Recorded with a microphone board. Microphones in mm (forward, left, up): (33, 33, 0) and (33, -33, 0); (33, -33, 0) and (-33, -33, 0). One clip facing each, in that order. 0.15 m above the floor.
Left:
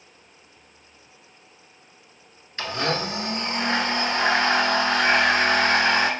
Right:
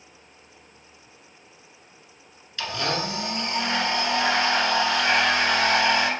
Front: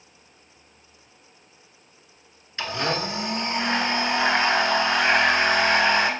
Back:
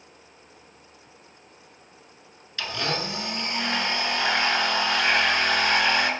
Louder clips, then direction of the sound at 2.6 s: Left 2 dB, front 3 dB; 50° left.